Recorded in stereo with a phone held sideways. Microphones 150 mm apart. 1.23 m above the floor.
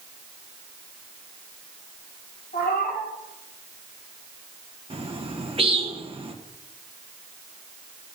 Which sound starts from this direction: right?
A bird, at 4.9 s.